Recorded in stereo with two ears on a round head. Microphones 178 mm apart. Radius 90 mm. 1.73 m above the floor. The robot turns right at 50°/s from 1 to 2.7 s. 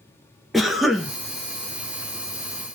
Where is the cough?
Centre (ahead or behind), 0.5 m; by 1.1 s 5° right (ahead or behind), 0.5 m.